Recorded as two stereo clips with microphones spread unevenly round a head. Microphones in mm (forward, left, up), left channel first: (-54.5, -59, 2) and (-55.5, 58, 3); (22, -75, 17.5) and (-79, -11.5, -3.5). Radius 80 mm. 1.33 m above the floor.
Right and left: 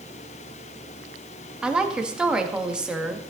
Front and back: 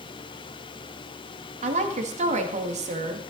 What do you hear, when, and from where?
1.6 s a woman speaking: 175° left, 1.9 m